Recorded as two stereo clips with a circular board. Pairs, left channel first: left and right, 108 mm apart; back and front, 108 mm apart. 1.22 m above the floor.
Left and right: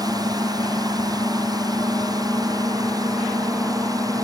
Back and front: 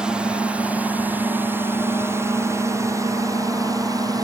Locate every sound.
0.0 s a drone: 75° right; by 4.2 s 45° right